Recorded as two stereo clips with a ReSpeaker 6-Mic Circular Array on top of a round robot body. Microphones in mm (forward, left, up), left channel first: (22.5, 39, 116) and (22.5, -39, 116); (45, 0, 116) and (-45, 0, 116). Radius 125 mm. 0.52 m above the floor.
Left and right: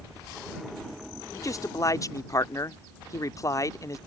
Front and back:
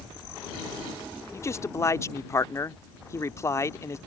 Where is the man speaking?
55° left.